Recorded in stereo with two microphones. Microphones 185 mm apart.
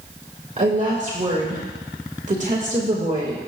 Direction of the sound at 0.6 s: 40° right (ahead or behind).